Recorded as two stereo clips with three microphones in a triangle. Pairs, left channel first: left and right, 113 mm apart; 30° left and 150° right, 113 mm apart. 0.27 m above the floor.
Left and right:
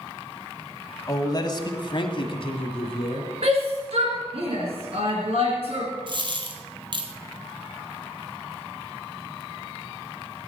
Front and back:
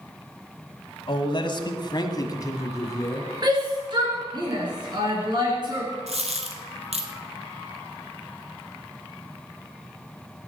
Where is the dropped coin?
135° right, 1.5 m.